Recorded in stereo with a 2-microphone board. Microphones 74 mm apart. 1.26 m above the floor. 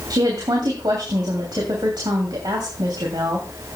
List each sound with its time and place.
0.1 s a woman speaking: 75° right (ahead or behind), 3 m